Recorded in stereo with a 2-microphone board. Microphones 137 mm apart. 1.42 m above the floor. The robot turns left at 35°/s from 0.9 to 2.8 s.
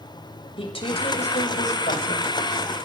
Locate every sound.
0.6 s a woman speaking: 140° left, 6.5 m; by 2.3 s 90° left, 6.5 m